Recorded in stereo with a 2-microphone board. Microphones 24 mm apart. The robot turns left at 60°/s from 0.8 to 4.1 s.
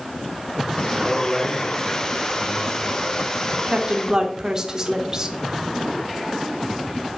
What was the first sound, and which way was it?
A man speaking, 145° right.